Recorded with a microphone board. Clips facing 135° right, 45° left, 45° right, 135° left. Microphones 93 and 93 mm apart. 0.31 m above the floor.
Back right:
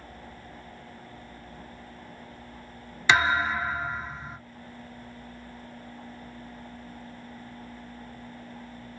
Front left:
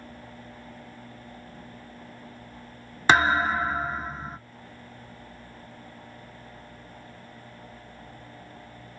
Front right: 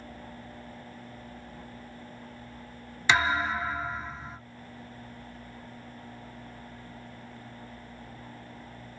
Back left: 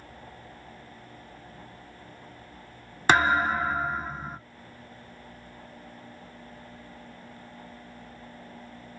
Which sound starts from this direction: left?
A thud, at 3.1 s.